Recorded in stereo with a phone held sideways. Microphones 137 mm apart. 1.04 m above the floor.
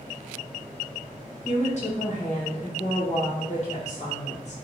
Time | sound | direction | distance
1.4 | a woman speaking | 55° left (ahead or behind) | 1.1 m